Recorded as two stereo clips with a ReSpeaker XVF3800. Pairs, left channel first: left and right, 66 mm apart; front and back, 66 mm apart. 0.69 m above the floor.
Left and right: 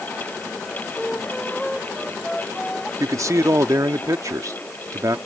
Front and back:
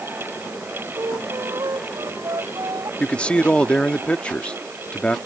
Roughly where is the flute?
Behind.